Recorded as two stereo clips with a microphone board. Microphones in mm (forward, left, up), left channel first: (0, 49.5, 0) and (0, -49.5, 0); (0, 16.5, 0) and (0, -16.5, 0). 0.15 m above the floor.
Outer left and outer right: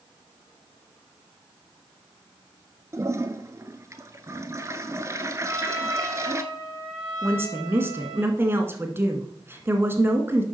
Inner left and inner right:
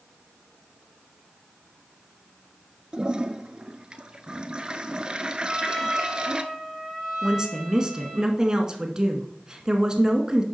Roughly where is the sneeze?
I don't hear a sneeze.